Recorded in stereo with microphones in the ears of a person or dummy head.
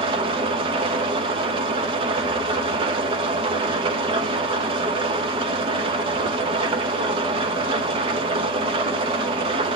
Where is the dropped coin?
I don't hear a dropped coin.